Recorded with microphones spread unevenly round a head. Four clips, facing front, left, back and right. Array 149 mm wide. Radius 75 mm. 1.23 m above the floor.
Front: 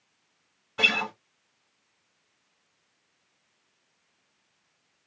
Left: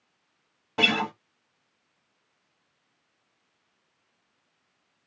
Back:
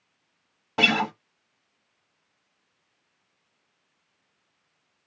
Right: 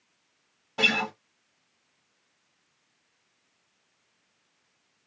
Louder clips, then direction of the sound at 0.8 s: Left 2 dB, back 6 dB; 165° left.